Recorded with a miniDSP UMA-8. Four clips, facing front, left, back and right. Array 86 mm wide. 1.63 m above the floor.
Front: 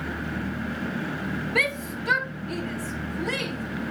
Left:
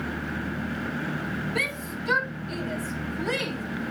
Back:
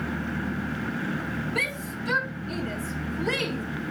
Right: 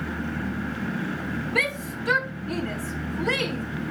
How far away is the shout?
About 1.4 m.